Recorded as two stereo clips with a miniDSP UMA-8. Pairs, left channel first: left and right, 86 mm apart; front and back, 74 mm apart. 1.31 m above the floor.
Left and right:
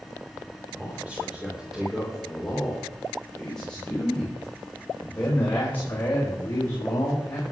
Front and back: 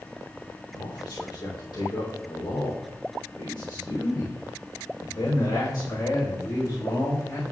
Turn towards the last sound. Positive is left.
turn(degrees=30)